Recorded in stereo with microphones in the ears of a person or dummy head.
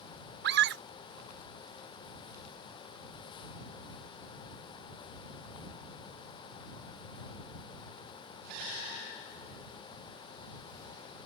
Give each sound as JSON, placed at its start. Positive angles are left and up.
{"t": 0.4, "sound": "a scream", "side_deg": -65}